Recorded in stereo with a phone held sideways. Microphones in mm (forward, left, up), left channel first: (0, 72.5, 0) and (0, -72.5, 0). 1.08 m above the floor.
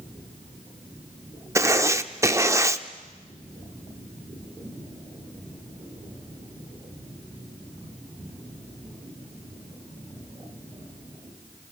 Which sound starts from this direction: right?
Writing, at 1.6 s.